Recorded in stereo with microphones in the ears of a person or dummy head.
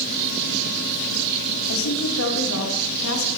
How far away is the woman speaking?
About 1.2 m.